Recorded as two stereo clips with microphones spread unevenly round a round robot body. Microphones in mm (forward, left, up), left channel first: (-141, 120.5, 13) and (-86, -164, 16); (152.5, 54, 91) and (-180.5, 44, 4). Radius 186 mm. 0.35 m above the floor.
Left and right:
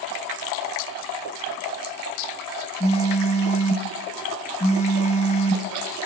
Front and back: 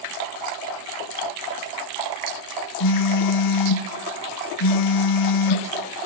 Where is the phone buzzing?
30° left, 1.5 m.